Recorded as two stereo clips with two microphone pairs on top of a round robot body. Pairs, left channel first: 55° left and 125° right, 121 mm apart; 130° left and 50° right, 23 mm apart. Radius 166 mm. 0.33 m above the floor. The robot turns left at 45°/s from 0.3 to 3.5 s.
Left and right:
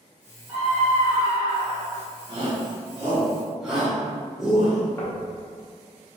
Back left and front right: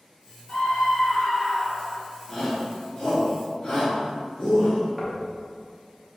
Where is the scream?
175° right, 1.5 m; by 2.0 s 120° left, 1.5 m.